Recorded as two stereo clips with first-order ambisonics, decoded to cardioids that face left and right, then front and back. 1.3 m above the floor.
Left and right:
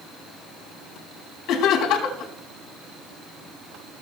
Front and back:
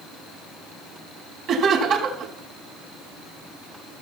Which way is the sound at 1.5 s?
135° left.